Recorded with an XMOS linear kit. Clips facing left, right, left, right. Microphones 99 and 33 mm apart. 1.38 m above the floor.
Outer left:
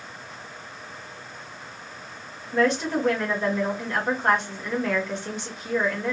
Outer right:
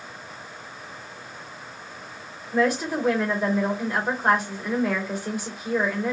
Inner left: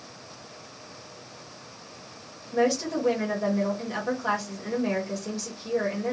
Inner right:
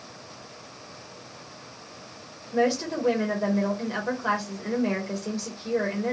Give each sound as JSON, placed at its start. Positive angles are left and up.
{"t": 2.5, "sound": "a woman speaking", "side_deg": -10, "distance_m": 1.6}